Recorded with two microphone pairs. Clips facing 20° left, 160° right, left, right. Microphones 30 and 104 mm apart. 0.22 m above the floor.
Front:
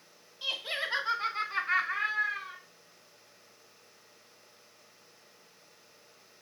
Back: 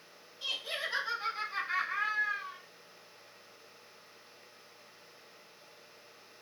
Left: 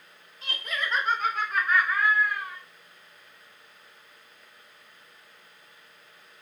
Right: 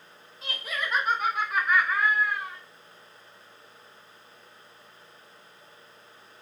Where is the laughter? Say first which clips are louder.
Front 3 dB, even; straight ahead, 1.0 m; by 2.6 s 20° right, 3 m.